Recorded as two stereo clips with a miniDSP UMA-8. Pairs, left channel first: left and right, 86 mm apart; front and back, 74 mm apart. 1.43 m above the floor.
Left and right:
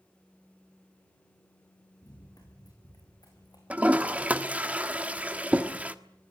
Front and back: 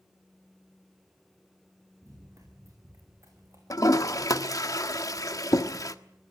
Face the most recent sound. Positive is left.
turn(degrees=-20)